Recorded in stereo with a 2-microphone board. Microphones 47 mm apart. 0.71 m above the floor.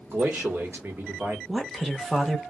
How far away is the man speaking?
About 1.2 m.